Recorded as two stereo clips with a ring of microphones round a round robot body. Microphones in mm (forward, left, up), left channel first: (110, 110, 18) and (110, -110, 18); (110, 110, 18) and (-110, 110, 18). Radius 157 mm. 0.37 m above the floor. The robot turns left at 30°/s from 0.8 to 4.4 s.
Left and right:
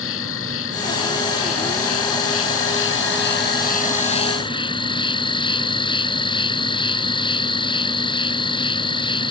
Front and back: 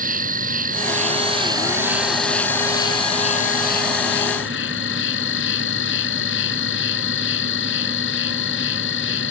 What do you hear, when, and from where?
0.0 s an insect: 130° left; by 9.3 s 25° left